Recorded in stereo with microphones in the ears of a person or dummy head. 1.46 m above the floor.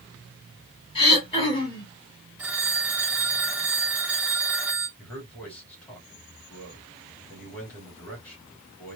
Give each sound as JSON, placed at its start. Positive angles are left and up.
{"t": 0.9, "sound": "throat clearing", "side_deg": 30, "distance_m": 2.0}
{"t": 2.4, "sound": "a phone ringing", "side_deg": -15, "distance_m": 0.6}
{"t": 5.0, "sound": "a man speaking", "side_deg": 5, "distance_m": 3.0}